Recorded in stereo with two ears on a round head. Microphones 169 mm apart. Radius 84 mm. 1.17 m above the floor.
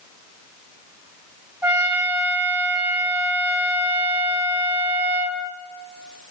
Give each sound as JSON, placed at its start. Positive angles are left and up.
{"t": 1.6, "sound": "a trumpet", "side_deg": -10, "distance_m": 3.0}